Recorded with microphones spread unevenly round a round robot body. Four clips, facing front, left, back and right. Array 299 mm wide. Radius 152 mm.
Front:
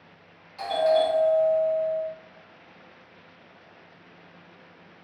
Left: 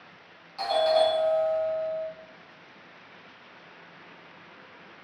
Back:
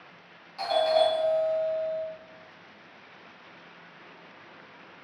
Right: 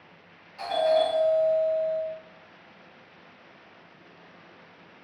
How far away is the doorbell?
About 1.6 m.